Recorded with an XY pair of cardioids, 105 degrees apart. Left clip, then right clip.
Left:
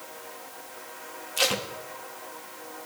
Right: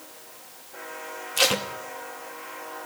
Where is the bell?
I don't hear a bell.